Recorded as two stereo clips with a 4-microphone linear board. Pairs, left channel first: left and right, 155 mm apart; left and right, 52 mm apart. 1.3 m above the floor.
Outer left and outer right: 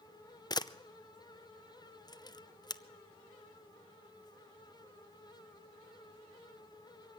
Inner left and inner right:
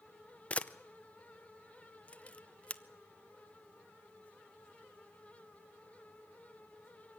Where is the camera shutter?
25° left (ahead or behind), 0.6 m.